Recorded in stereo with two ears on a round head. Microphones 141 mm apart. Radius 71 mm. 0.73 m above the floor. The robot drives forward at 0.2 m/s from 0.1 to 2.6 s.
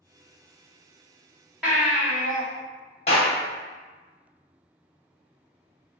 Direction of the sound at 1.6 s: 5° right (ahead or behind).